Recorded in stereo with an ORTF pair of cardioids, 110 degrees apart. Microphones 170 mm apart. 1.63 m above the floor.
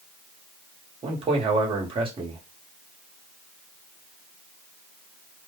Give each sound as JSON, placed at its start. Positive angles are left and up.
{"t": 1.0, "sound": "a man speaking", "azimuth_deg": -30, "distance_m": 1.4}